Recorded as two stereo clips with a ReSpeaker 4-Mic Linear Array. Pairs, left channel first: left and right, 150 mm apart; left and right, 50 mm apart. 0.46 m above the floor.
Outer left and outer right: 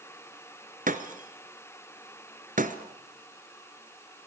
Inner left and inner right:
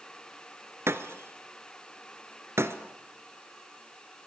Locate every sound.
0.9 s breaking glass: 65° right (ahead or behind), 1.5 m